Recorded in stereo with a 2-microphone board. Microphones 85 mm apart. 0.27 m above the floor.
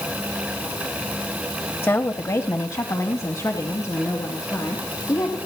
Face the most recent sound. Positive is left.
turn(degrees=40)  # may be behind; listen again after turning